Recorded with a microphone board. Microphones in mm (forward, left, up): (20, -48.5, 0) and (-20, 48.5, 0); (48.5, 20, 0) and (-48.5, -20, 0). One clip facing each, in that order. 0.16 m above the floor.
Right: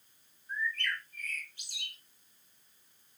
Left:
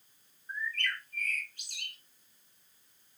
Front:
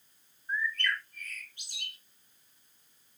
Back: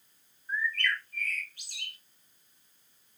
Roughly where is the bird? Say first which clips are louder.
Right 1 dB, back 1 dB; left.